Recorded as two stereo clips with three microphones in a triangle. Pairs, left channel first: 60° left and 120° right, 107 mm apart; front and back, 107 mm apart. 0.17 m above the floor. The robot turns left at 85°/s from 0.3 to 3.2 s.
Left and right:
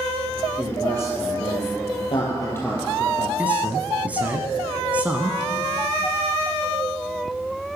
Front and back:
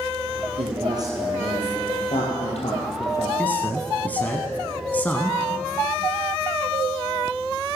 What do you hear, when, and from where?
0.6 s a man speaking: 160° left, 4.5 m; by 3.3 s 60° right, 4.5 m
3.4 s a man speaking: 60° right, 1.2 m